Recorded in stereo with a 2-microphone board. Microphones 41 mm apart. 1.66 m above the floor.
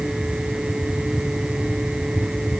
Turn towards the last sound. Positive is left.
No sound to turn to.